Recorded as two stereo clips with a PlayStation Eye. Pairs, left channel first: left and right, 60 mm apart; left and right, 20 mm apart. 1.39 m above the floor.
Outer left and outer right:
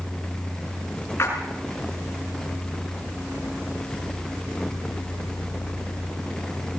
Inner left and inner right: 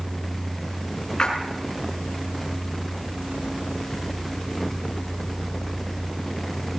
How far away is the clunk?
No clunk in this recording.